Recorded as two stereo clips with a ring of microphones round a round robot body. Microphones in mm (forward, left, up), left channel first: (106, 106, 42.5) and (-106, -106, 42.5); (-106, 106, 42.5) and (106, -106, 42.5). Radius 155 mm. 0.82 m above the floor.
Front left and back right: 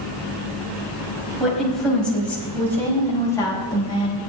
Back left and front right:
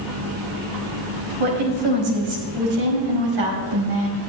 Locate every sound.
1.4 s a woman speaking: 45° right, 5.5 m; by 4.2 s 30° right, 5 m